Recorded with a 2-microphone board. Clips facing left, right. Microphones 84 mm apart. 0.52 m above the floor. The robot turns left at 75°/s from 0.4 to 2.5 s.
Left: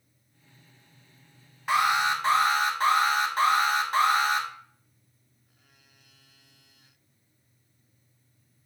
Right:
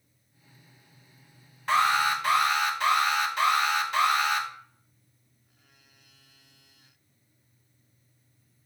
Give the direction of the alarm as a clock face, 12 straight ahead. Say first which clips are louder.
Even; 6 o'clock.